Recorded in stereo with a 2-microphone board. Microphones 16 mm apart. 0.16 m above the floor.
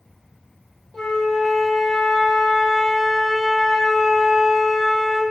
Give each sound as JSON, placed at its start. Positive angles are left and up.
{"t": 0.9, "sound": "a flute", "side_deg": 75, "distance_m": 1.1}